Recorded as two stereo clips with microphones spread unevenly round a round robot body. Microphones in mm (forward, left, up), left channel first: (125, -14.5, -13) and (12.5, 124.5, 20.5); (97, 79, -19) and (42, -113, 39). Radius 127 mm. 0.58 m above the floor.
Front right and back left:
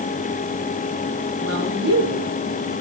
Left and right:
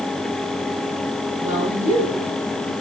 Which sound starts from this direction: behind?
A woman speaking, at 1.4 s.